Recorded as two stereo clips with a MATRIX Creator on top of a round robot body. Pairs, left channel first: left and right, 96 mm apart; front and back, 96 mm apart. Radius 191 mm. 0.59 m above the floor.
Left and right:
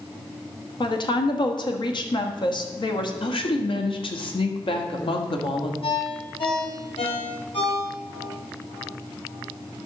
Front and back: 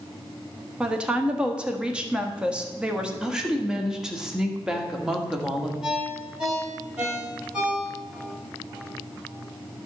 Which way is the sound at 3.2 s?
95° left.